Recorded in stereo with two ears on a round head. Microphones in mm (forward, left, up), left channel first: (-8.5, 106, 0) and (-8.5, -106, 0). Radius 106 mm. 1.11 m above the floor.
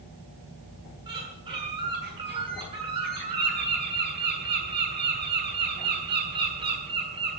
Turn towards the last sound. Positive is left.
turn(degrees=-20)  # may be behind; listen again after turning